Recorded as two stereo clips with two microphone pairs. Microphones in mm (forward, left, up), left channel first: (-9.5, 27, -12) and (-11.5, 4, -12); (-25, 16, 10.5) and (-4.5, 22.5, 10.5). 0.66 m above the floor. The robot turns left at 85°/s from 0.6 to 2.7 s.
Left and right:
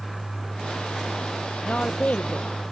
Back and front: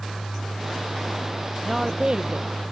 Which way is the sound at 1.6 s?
100° left.